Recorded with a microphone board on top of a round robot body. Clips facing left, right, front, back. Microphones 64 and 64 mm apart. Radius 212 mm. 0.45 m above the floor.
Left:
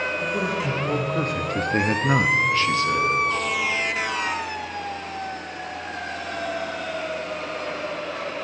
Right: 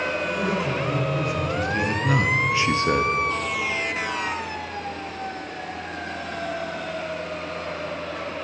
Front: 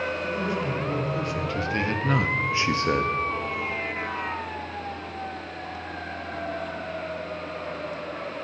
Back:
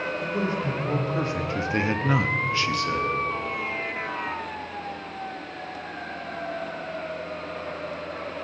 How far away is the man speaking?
About 3 m.